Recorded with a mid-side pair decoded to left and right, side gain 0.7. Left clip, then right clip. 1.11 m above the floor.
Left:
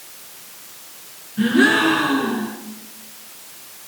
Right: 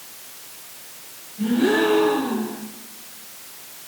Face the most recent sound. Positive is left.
turn(degrees=70)